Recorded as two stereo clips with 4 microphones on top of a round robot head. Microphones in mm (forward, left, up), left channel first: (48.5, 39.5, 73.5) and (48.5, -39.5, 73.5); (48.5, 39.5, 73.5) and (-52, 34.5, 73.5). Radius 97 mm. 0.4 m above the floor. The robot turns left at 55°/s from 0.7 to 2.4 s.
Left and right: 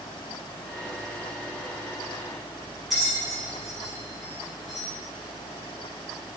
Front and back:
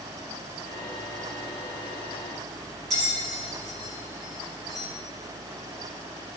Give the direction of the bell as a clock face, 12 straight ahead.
6 o'clock.